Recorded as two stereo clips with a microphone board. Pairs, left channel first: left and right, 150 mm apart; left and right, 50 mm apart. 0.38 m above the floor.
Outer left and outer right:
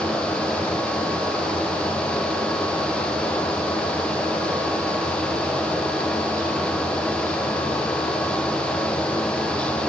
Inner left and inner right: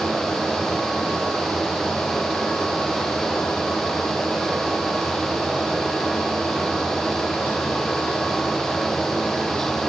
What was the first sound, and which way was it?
Only background noise.